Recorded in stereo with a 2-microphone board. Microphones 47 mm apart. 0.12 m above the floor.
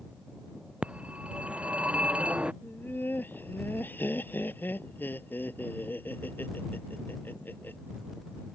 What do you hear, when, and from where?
0.8 s a phone ringing: 25° right (ahead or behind)
2.6 s laughter: 50° left (ahead or behind)